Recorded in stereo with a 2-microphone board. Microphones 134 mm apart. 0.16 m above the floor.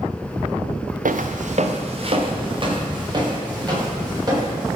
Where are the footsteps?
80° right, 0.8 m; by 4.8 s 30° right (ahead or behind), 5 m.